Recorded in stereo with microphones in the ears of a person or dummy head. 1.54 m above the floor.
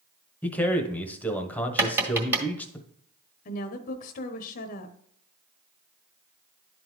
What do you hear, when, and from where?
0.4 s a man speaking: 10° left (ahead or behind), 1.0 m
1.8 s tapping: 10° right (ahead or behind), 1.5 m
3.5 s a woman speaking: 45° left (ahead or behind), 0.8 m